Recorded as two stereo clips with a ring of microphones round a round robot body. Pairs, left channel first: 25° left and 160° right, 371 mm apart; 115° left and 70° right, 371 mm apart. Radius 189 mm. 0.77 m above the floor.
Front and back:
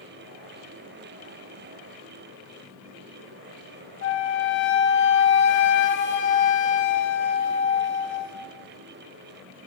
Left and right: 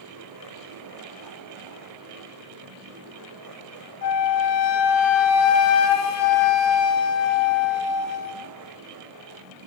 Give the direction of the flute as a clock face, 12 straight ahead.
9 o'clock.